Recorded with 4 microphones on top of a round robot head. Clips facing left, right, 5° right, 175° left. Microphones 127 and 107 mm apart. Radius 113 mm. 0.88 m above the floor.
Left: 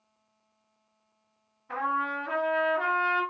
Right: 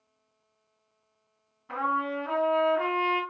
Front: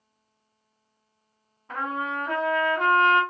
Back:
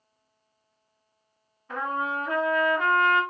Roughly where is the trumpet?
Right.